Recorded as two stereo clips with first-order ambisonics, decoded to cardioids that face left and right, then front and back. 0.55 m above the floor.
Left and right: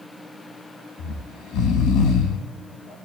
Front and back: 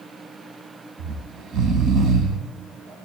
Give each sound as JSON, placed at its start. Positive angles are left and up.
{"t": 1.0, "sound": "snoring", "azimuth_deg": 130, "distance_m": 1.3}